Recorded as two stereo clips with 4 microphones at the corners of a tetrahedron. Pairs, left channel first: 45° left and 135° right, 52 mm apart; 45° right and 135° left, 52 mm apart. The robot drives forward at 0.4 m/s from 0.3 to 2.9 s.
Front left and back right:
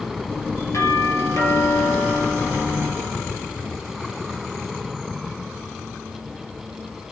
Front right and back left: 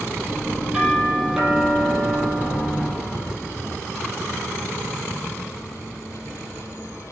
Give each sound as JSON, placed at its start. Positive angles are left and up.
{"t": 0.7, "sound": "a doorbell", "azimuth_deg": 60, "distance_m": 5.5}